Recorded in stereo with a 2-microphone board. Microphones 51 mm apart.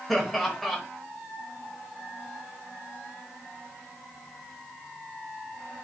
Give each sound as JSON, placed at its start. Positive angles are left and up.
{"t": 0.1, "sound": "laughter", "side_deg": 0, "distance_m": 0.9}